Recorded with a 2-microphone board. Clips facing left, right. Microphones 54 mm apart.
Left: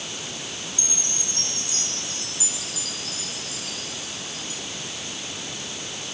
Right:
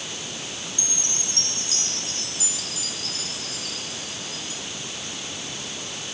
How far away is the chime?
About 8 m.